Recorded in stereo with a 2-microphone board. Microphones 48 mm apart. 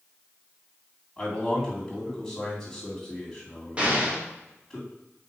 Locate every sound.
1.2 s a man speaking: 5° left (ahead or behind), 2.0 m
3.8 s an explosion: 25° right (ahead or behind), 1.5 m